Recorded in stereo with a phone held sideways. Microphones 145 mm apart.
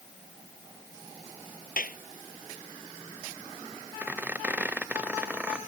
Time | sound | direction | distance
1.8 | a clap | 80° left | ?
4.0 | a squeak | 10° right (ahead or behind) | ?